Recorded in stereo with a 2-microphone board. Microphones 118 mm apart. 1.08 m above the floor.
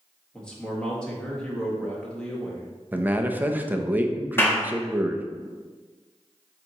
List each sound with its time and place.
0.3 s a man speaking: 5° left (ahead or behind), 1.6 m
2.9 s a man speaking: 15° right (ahead or behind), 0.7 m
4.4 s a clap: 20° left (ahead or behind), 1.3 m